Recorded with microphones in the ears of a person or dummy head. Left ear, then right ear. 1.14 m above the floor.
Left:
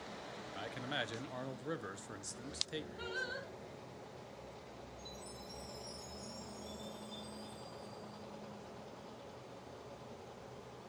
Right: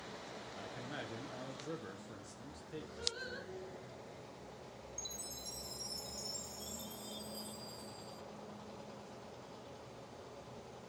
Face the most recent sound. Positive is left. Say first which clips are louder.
# right 6 dB
turn(degrees=-75)  # may be behind; listen again after turning